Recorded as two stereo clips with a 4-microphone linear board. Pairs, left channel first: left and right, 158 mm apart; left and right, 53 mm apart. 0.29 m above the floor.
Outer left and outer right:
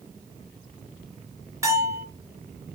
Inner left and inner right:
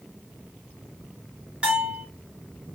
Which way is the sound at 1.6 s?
20° right (ahead or behind).